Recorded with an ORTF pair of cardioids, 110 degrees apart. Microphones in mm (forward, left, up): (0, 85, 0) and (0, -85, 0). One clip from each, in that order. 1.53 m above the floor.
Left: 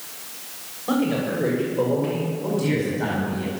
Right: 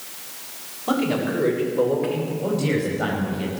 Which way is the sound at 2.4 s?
40° right.